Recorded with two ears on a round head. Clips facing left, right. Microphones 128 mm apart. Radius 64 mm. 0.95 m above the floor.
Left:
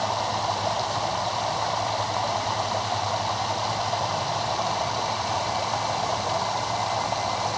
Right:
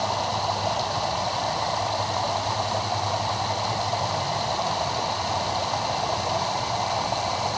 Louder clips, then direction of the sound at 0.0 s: Even; 5° right (ahead or behind).